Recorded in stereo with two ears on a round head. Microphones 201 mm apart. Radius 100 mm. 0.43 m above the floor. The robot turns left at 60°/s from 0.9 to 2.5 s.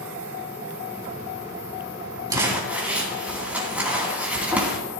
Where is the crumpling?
20° right (ahead or behind), 3 m; by 4.8 s 5° right (ahead or behind), 3 m.